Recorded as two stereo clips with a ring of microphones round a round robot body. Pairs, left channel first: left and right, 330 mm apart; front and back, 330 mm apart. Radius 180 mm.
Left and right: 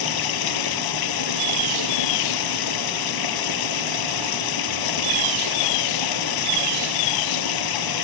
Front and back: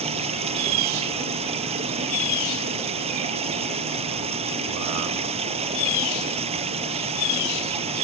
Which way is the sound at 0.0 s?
105° left.